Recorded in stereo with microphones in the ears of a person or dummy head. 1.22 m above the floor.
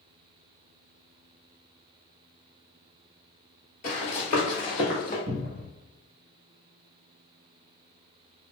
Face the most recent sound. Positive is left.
turn(degrees=-60)  # may be behind; listen again after turning